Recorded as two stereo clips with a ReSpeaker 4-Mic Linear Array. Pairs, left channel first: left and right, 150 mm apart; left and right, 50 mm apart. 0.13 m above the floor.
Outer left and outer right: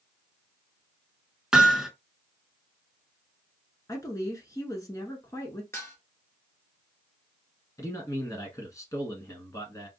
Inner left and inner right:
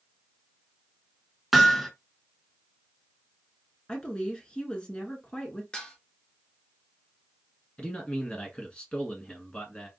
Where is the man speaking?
20° left (ahead or behind), 1.1 m.